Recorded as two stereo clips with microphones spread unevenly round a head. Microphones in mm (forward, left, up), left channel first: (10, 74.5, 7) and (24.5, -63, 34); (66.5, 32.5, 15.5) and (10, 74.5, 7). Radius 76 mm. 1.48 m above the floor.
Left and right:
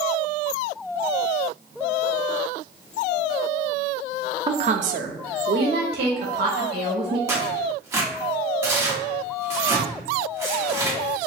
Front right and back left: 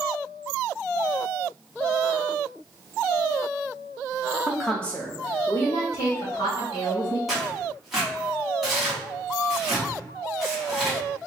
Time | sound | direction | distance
4.5 | a woman speaking | 145° right | 0.5 m
7.3 | tearing paper | 120° right | 1.1 m